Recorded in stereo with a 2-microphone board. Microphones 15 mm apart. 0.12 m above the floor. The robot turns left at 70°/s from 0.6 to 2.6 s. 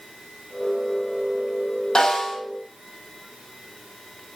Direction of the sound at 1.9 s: 65° left (ahead or behind).